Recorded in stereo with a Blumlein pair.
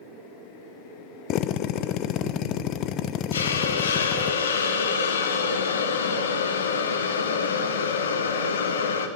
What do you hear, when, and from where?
1.3 s a drill: 35° left, 0.8 m
3.3 s a hiss: 70° left, 1.4 m